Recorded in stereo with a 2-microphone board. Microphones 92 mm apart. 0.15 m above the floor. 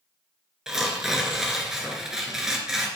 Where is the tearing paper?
5° right (ahead or behind), 1.2 m.